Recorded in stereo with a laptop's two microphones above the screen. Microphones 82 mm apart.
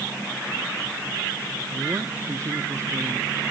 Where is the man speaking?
40° right (ahead or behind); by 3.3 s 35° right (ahead or behind).